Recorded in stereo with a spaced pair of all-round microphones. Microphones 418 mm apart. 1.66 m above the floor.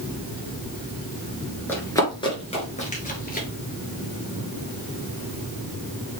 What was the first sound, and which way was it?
Running footsteps, 5° left (ahead or behind).